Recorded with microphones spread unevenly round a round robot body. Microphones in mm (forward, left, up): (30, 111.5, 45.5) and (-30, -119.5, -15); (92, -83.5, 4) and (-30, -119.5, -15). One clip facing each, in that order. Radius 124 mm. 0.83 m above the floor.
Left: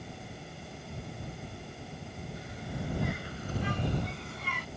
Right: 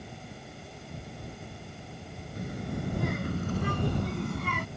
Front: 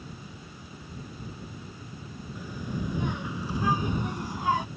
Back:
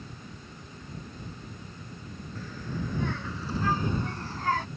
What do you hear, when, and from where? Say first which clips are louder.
2.4 s a child speaking: right 7 dB, front 2 dB; 55° right; by 4.7 s 60° right